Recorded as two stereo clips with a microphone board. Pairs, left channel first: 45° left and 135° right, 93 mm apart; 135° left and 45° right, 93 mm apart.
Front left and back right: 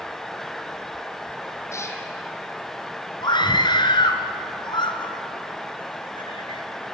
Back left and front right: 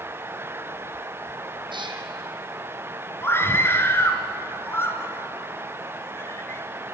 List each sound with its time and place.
1.7 s a cat meowing: 15° right, 2.5 m
3.2 s a scream: 70° left, 2.5 m